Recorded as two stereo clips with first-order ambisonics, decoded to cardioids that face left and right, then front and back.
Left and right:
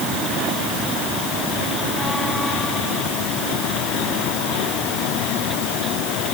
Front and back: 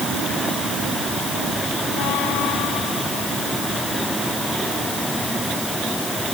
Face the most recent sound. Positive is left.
No sound to turn to.